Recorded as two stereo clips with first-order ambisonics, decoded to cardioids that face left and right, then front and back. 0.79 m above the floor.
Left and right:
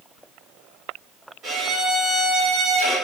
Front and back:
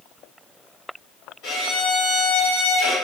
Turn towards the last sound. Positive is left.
turn(degrees=-40)